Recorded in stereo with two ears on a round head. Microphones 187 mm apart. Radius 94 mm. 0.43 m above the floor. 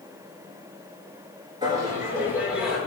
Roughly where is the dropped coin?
I don't hear a dropped coin.